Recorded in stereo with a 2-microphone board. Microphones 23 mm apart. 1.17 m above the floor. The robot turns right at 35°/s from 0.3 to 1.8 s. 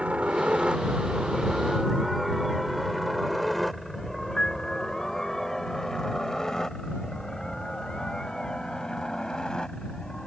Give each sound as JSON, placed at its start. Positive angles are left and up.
{"t": 0.0, "sound": "a helicopter", "side_deg": -70}
{"t": 4.4, "sound": "a piano", "side_deg": 35}